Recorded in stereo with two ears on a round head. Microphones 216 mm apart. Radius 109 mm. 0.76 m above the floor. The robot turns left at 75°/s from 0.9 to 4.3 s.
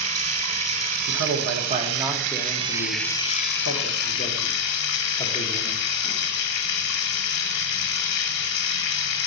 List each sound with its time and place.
0.0 s running water: 25° right, 1.6 m; by 9.3 s 80° left, 1.6 m
1.1 s a man speaking: 70° right (ahead or behind), 1.2 m; by 5.8 s 20° left (ahead or behind), 1.2 m